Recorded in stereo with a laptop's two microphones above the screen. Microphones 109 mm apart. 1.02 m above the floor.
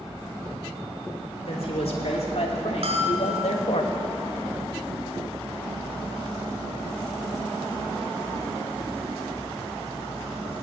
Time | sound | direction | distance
1.5 | a man speaking | 65° left (ahead or behind) | 3 m
2.8 | a bell | 65° right (ahead or behind) | 1.9 m